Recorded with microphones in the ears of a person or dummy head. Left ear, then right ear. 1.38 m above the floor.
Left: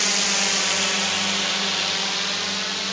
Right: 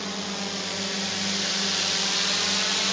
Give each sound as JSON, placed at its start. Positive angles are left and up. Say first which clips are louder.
{"t": 0.0, "sound": "a drone", "louder": "left 10 dB", "side_deg": 65}